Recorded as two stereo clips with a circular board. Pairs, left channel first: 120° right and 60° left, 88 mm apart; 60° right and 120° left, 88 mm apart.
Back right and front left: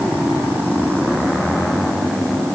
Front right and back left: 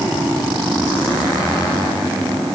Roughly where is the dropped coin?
I don't hear a dropped coin.